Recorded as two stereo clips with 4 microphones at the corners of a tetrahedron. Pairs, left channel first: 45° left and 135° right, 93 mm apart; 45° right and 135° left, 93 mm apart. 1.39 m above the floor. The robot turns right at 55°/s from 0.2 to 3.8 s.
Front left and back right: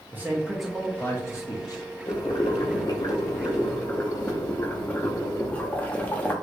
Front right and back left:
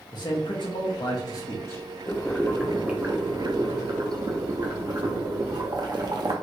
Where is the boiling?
20° left, 0.6 m; by 6.3 s 115° left, 0.6 m.